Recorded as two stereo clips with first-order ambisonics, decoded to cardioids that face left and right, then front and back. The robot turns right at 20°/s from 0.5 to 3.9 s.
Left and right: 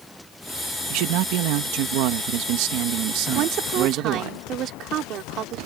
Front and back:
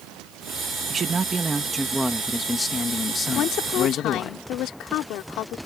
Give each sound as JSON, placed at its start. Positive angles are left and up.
{"t": 0.9, "sound": "a man speaking", "azimuth_deg": -115}
{"t": 3.4, "sound": "a woman speaking", "azimuth_deg": -55}